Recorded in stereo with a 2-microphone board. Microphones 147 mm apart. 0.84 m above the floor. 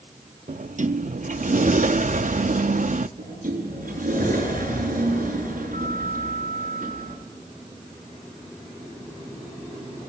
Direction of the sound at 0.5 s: 60° right (ahead or behind).